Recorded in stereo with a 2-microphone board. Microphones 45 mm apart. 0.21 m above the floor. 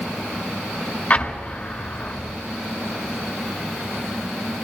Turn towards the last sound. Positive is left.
turn(degrees=35)  # may be behind; listen again after turning